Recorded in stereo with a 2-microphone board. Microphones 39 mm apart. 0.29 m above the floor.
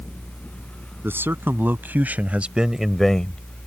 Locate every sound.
1.0 s a man speaking: 65° right (ahead or behind); by 3.7 s 40° left (ahead or behind)